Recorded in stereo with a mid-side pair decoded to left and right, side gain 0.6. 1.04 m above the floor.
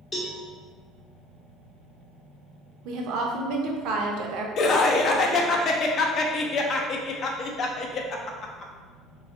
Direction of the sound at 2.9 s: 70° right.